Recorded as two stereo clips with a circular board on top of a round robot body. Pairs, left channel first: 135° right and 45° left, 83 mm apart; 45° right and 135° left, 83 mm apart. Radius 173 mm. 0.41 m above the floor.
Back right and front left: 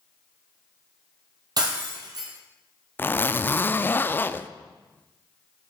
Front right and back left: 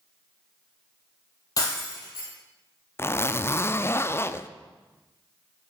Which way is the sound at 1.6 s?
5° left.